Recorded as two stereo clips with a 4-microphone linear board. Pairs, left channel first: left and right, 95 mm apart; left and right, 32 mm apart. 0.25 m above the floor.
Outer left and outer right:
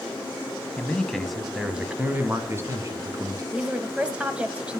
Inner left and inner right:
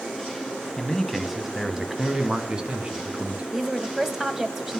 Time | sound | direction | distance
0.8 | a man speaking | 15° left (ahead or behind) | 2 m
3.5 | a woman speaking | 15° right (ahead or behind) | 1.7 m